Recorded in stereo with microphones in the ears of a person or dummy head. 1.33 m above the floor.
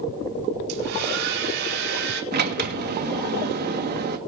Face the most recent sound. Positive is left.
turn(degrees=-55)  # may be behind; listen again after turning